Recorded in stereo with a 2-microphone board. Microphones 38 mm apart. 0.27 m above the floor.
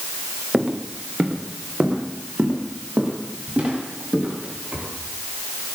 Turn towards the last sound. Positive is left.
turn(degrees=-35)  # may be behind; listen again after turning